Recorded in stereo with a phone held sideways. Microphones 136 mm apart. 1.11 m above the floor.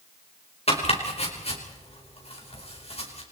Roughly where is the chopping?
Left.